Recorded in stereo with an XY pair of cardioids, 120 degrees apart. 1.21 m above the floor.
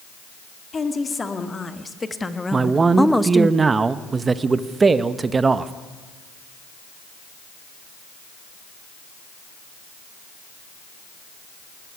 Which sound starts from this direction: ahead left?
A woman speaking, at 0.7 s.